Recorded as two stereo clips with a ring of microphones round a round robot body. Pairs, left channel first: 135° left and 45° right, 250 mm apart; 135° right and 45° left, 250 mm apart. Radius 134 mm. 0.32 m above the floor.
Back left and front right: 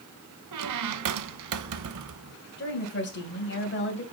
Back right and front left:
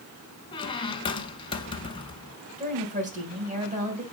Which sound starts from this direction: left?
A woman speaking, at 2.6 s.